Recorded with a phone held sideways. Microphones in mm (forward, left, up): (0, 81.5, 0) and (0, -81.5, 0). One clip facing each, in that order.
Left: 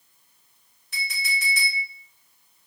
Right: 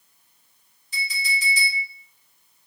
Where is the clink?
65° left (ahead or behind), 1.0 m.